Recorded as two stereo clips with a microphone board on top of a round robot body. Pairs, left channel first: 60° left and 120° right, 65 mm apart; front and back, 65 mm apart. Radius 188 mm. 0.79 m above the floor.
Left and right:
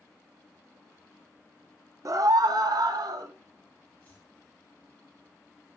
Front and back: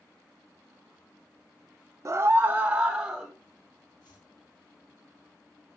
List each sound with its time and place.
2.0 s a scream: 140° right, 1.1 m; by 3.3 s 95° right, 2.5 m
4.0 s chopping: 5° right, 5 m